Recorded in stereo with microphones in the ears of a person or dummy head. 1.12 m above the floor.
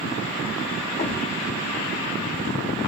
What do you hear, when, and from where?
1.0 s a thud: 35° left (ahead or behind), 0.8 m